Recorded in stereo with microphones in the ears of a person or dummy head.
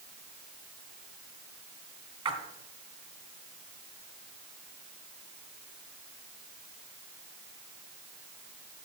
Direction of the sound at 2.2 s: 25° right (ahead or behind).